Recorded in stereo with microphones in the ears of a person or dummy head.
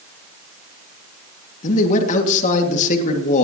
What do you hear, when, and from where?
1.6 s a man speaking: 45° left (ahead or behind), 2 m